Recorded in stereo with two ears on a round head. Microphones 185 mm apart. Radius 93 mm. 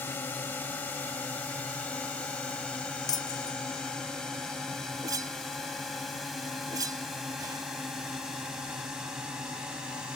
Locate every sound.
0.0 s a drone: 10° left (ahead or behind); by 10.2 s 5° right (ahead or behind)
3.1 s breaking glass: 20° left (ahead or behind)
5.0 s a whoosh: 20° right (ahead or behind)